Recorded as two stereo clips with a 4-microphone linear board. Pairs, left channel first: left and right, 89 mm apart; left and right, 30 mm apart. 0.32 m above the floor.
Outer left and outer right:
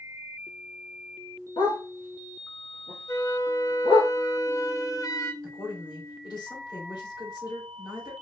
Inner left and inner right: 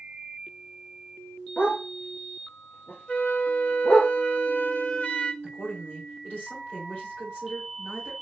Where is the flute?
45° left (ahead or behind), 0.7 m.